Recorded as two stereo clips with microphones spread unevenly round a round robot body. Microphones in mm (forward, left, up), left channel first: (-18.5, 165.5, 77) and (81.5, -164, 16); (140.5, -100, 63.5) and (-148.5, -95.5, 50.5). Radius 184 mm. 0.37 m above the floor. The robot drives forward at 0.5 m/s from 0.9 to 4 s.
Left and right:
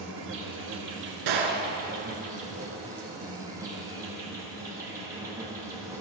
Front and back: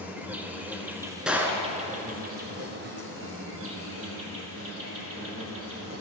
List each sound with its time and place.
0.0 s an insect: 100° right, 1.4 m; by 6.0 s 150° right, 2 m
1.3 s a gunshot: 95° right, 1.2 m; by 1.7 s 105° right, 1.2 m